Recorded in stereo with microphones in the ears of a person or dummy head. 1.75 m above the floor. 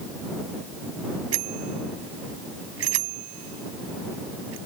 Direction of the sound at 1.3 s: 85° right.